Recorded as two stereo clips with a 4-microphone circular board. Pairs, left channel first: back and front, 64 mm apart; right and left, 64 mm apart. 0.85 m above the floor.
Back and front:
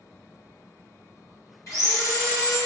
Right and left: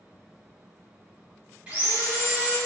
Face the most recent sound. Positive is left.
turn(degrees=155)